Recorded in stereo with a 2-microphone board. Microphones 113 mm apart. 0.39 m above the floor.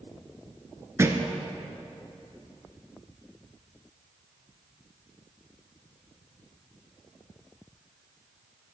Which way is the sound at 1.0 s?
25° right (ahead or behind).